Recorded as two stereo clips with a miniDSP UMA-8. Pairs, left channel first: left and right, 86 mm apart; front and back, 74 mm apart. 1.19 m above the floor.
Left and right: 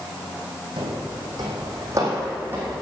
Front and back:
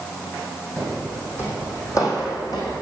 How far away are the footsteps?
About 3.5 m.